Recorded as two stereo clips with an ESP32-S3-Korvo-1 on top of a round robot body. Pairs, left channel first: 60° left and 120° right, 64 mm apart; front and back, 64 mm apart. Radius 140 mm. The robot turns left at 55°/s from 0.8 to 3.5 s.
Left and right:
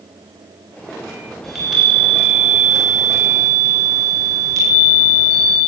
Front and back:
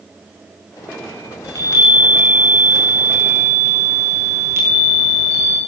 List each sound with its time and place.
1.4 s a chime: 25° right, 8.5 m; by 5.6 s 135° right, 8.5 m